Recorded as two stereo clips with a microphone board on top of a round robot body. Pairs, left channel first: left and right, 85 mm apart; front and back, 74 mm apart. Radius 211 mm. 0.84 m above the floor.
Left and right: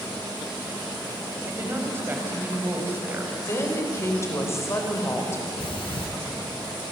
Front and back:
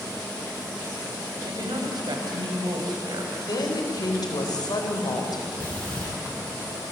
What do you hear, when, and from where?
1.4 s a woman speaking: 155° right, 5 m
3.4 s a woman speaking: 30° left, 4 m
5.6 s breathing: 70° left, 5 m